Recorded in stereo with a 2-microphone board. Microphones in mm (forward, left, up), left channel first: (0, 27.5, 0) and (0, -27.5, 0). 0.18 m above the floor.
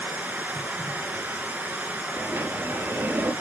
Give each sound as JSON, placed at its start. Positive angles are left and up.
{"t": 0.0, "sound": "running water", "side_deg": -30, "distance_m": 2.0}
{"t": 2.2, "sound": "a sliding door", "side_deg": -45, "distance_m": 2.5}